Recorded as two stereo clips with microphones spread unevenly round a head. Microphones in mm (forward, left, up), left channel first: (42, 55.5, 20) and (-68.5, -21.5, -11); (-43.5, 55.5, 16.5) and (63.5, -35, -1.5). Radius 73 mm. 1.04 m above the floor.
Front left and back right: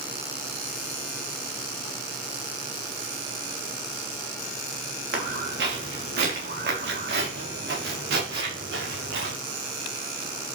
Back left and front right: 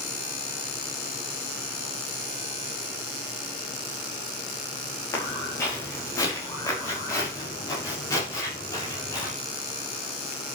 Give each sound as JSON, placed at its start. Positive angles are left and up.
{"t": 5.1, "sound": "footsteps", "azimuth_deg": -150, "distance_m": 6.0}